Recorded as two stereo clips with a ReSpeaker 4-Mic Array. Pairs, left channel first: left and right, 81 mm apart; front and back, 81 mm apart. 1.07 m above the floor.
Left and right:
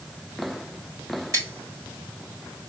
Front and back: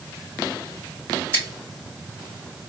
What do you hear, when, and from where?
1.3 s scissors: 140° right, 3 m